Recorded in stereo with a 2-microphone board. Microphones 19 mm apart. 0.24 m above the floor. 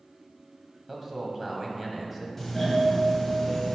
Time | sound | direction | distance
0.9 | a man speaking | 10° right (ahead or behind) | 1.4 m
2.4 | a doorbell | 5° left (ahead or behind) | 1.5 m